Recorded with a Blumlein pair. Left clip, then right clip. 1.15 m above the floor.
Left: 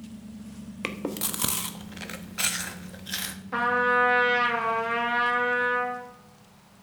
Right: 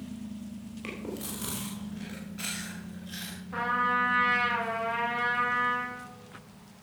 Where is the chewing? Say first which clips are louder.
Left 7 dB; 60° left, 1.3 m.